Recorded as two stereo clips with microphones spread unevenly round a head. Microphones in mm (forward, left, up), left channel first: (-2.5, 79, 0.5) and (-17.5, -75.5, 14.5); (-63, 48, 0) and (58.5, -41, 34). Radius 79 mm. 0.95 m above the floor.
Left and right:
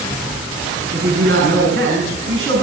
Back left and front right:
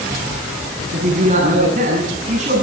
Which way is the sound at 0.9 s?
75° right.